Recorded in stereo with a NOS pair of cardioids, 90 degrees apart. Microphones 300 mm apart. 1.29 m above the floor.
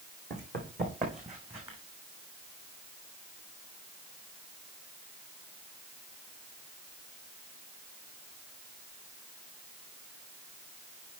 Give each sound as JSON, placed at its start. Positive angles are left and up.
{"t": 0.3, "sound": "running footsteps", "azimuth_deg": -35, "distance_m": 4.5}